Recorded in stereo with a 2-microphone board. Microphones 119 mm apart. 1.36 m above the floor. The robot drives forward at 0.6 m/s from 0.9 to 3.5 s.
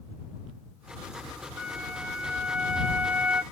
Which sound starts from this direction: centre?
A flute, at 1.6 s.